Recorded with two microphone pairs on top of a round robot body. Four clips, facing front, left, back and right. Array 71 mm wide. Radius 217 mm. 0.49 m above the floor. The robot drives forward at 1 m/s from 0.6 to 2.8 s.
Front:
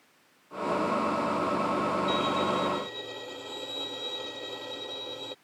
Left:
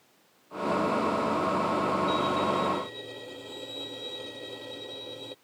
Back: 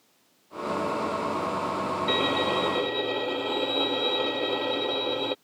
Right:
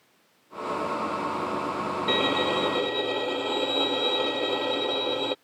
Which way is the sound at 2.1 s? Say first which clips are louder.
Right 1 dB, back 2 dB; 120° right.